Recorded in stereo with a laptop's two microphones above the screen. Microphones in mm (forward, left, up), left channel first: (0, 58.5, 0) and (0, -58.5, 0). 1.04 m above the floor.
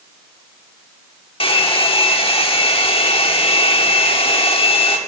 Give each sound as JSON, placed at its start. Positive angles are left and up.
{"t": 1.4, "sound": "a hair dryer", "side_deg": 50, "distance_m": 1.1}